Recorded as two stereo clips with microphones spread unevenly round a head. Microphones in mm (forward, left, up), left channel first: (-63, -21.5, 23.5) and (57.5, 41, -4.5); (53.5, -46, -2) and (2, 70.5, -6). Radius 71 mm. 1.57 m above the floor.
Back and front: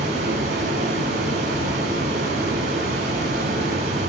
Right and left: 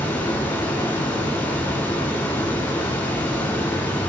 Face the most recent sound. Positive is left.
turn(degrees=5)